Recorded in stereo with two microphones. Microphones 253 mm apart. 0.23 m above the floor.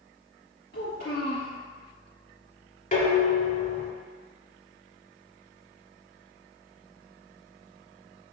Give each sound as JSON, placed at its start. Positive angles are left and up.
{"t": 0.7, "sound": "a child speaking", "side_deg": 45, "distance_m": 1.4}
{"t": 2.9, "sound": "dishes clattering", "side_deg": 30, "distance_m": 1.0}